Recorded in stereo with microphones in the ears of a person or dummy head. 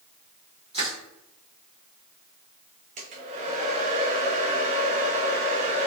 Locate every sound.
0.7 s crushing: 35° right (ahead or behind), 1.1 m
3.0 s a hair dryer: 40° right (ahead or behind), 0.8 m